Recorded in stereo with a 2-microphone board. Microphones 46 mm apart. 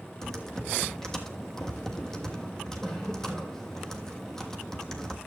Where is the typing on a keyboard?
10° left (ahead or behind), 1.3 m.